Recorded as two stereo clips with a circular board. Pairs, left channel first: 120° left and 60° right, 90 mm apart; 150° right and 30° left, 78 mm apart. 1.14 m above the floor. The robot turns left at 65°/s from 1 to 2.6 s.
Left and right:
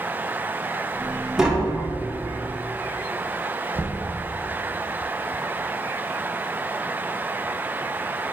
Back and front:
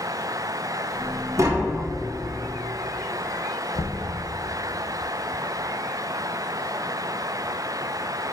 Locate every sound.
1.4 s tapping: 20° left, 0.9 m; by 1.8 s 10° right, 0.9 m
3.7 s knocking: 120° right, 0.8 m